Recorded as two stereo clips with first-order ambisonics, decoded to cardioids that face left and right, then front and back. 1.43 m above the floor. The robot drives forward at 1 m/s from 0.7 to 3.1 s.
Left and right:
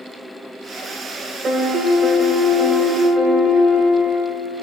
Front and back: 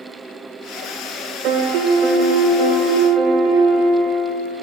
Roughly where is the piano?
Behind right.